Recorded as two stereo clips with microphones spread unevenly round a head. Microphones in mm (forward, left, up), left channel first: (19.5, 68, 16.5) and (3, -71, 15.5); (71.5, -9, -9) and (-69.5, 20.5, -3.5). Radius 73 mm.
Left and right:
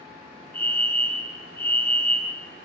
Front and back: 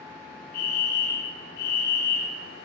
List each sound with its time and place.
0.5 s a fire alarm: 5° left, 4.5 m